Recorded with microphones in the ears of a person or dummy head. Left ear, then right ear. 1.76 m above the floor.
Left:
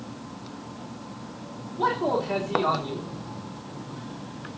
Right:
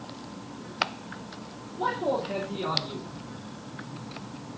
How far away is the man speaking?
About 4.5 m.